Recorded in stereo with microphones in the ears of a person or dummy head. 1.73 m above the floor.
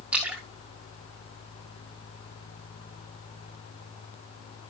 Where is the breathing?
No breathing in this recording.